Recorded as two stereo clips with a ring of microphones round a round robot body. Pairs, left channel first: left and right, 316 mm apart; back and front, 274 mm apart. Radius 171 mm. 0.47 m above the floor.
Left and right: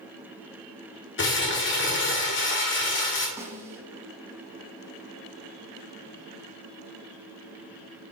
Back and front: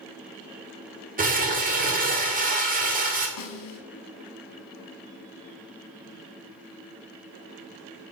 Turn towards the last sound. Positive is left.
turn(degrees=-170)